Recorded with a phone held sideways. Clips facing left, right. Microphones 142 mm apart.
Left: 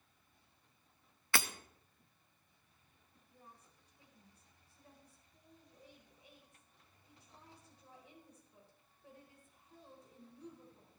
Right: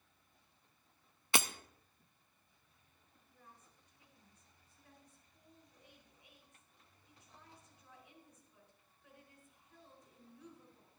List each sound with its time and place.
1.3 s breaking glass: 20° right (ahead or behind), 0.6 m
3.1 s a woman speaking: 35° left (ahead or behind), 4.5 m